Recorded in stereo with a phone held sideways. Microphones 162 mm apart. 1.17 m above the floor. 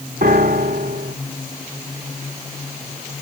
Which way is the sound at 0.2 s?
80° right.